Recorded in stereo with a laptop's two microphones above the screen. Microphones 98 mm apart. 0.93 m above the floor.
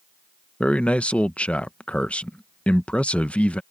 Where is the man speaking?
15° left (ahead or behind).